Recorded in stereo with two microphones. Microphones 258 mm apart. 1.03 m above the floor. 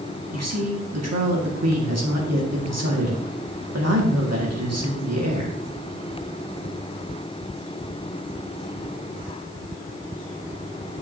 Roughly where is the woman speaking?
Right.